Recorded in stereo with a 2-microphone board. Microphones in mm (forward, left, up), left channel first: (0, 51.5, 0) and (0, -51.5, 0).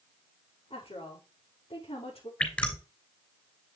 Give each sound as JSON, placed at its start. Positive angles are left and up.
{"t": 0.7, "sound": "a woman speaking", "side_deg": 75, "distance_m": 5.5}
{"t": 2.4, "sound": "dripping", "side_deg": 10, "distance_m": 3.0}